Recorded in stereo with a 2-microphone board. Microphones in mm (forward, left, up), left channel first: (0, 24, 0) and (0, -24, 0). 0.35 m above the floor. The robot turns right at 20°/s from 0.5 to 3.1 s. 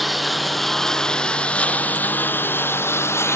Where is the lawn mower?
Centre (ahead or behind); by 3.4 s 60° left (ahead or behind).